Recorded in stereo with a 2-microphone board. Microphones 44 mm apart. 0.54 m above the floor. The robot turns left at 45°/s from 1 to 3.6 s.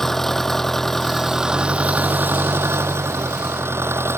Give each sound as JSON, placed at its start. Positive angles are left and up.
{"t": 0.0, "sound": "an engine running", "azimuth_deg": 10}